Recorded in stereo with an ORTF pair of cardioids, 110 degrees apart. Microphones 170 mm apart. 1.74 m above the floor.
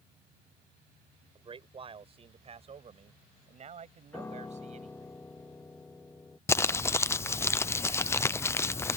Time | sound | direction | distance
1.4 | a man speaking | 30° right | ?
4.1 | a piano | 15° left | ?
6.5 | crumpling | 15° left | ?